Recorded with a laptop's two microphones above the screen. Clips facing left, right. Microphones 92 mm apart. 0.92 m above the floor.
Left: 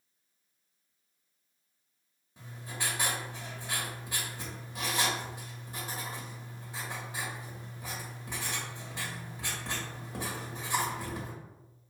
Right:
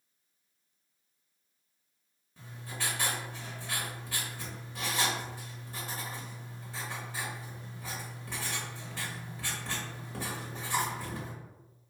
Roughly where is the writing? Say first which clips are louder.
Left 1 dB; centre.